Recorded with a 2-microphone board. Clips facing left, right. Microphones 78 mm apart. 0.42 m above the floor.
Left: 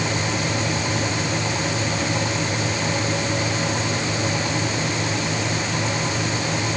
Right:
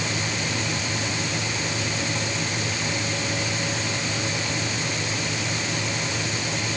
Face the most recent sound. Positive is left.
No sound to turn to.